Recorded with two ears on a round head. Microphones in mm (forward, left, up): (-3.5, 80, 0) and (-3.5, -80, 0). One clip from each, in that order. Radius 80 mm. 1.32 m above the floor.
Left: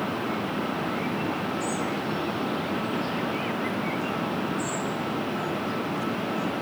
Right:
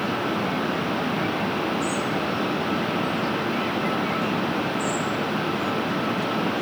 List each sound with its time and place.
Only background noise.